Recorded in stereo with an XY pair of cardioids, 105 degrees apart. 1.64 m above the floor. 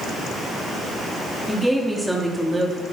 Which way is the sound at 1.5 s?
Straight ahead.